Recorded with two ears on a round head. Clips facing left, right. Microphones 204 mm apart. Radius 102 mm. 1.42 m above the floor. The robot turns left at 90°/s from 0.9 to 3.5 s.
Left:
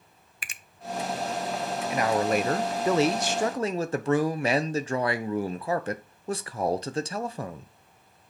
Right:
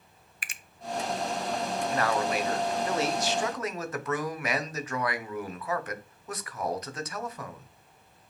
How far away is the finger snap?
About 0.6 m.